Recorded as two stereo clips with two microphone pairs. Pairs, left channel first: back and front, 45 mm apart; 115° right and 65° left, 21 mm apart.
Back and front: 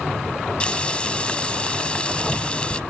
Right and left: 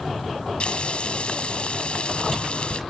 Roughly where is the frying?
Behind right.